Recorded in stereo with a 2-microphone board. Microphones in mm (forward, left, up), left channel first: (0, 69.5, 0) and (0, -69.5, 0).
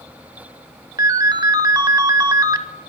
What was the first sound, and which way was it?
A ringtone, 30° right (ahead or behind).